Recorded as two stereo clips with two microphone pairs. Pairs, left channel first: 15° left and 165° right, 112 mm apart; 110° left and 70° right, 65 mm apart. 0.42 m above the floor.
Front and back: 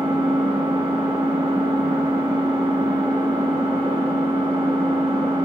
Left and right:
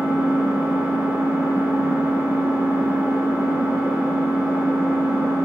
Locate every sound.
0.0 s an engine running: 125° right, 2.5 m